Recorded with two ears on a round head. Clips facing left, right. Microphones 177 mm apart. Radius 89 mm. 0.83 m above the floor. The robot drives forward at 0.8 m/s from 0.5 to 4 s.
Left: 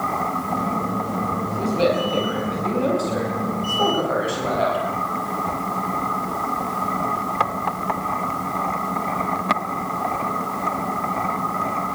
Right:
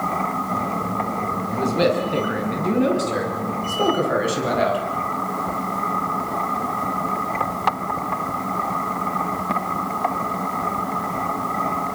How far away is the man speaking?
About 8 m.